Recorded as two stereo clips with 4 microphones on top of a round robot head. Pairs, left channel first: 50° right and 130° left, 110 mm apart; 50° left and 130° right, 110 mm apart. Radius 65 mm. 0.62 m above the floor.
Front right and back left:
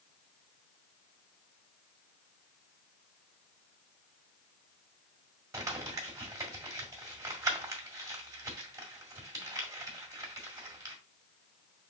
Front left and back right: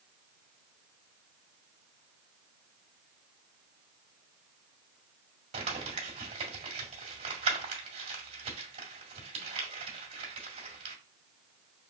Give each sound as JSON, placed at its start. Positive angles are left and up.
{"t": 5.5, "sound": "crumpling", "azimuth_deg": -165, "distance_m": 1.6}